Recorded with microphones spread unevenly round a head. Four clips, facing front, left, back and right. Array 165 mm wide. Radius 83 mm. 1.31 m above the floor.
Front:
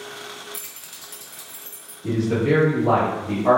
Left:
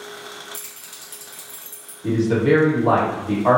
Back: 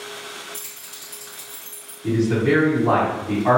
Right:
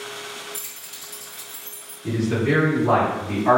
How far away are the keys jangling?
About 0.8 m.